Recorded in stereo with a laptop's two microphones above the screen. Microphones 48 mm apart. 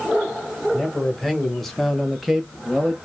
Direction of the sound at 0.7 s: 5° left (ahead or behind).